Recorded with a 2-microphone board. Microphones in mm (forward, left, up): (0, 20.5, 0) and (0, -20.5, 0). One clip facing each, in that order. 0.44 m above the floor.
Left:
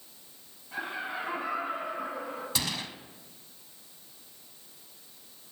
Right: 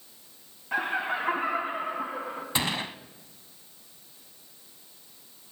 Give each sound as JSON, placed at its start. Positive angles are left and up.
{"t": 0.7, "sound": "laughter", "side_deg": -65, "distance_m": 2.5}
{"t": 2.5, "sound": "a gunshot", "side_deg": -30, "distance_m": 0.6}